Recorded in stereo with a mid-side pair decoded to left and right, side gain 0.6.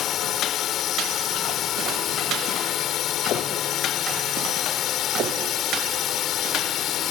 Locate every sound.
0.0 s a drone: 55° left